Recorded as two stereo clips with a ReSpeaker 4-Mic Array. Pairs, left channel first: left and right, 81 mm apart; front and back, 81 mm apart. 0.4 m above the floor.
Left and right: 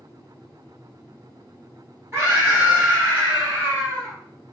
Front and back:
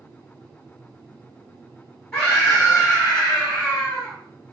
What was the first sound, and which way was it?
A scream, 85° right.